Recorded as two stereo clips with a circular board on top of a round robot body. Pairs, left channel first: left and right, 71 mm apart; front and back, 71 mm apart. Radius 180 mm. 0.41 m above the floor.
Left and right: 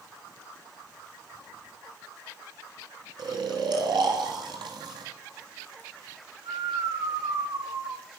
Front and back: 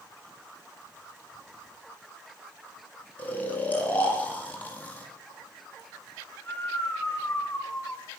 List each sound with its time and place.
3.2 s snoring: 70° right, 1.8 m